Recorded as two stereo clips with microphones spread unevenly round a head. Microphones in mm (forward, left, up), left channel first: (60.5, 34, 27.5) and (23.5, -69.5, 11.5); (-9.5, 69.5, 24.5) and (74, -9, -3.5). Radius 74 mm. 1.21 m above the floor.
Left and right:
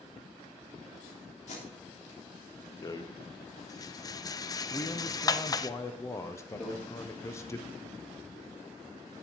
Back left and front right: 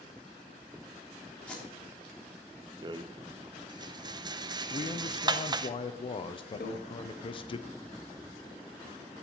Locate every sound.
1.5 s tape being pulled: 55° left, 3.5 m
2.8 s a rattle: 10° left, 0.5 m
4.7 s a man speaking: 125° left, 0.6 m
6.6 s a microwave: 150° left, 1.5 m